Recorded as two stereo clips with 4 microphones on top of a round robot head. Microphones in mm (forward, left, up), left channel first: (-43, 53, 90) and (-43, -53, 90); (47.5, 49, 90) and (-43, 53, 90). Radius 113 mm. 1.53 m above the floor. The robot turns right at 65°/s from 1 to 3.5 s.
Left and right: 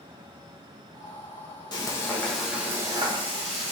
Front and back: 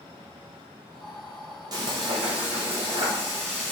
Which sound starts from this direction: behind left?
Frying, at 1.7 s.